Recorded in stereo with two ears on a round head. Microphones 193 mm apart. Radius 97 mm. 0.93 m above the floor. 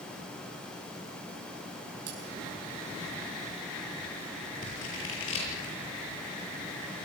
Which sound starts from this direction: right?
Cutlery clinking, at 2.1 s.